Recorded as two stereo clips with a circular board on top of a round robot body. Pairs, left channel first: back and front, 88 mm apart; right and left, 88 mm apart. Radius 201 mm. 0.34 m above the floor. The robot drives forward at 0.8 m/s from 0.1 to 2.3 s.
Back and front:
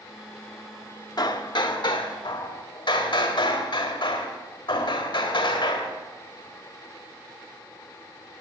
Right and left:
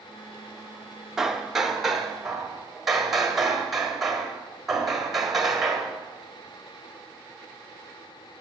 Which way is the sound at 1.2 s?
175° left.